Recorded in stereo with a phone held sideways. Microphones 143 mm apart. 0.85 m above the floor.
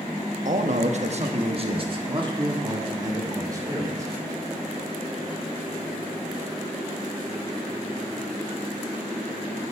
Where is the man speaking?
60° right (ahead or behind), 1.0 m; by 4.1 s 25° right (ahead or behind), 2.5 m.